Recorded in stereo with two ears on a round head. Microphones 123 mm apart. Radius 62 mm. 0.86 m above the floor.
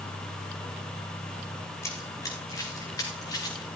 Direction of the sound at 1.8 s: 20° left (ahead or behind).